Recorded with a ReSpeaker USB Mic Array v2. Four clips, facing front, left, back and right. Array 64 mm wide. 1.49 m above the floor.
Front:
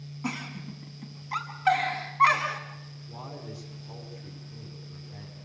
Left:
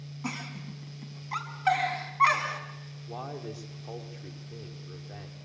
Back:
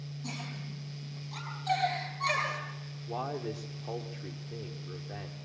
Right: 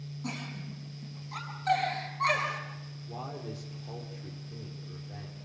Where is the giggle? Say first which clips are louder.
Left 2 dB, front 8 dB; 40° left, 6.5 m.